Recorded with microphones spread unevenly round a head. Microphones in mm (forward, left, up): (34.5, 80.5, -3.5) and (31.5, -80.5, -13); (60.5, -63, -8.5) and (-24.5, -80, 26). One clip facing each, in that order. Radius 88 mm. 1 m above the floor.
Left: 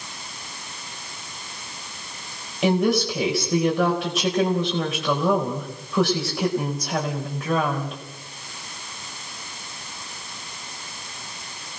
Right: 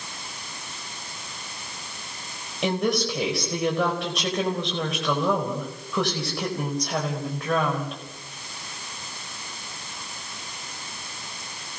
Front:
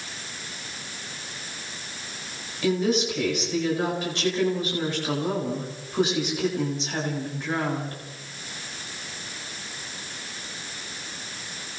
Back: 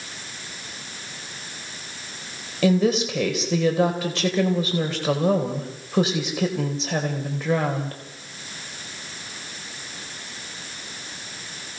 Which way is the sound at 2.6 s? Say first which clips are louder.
Left 4 dB, back 4 dB; 175° left.